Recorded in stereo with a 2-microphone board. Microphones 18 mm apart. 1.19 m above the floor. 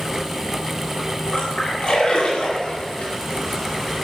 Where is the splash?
60° left (ahead or behind), 9 m.